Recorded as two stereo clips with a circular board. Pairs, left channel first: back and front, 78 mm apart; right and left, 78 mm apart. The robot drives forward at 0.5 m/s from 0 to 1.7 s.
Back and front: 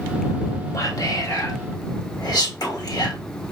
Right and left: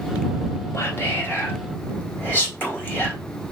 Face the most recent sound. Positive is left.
turn(degrees=-150)